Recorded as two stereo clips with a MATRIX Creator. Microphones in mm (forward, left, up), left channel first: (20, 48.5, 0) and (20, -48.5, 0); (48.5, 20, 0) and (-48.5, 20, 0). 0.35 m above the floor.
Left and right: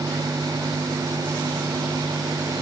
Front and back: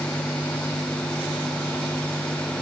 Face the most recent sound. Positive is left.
No sound to turn to.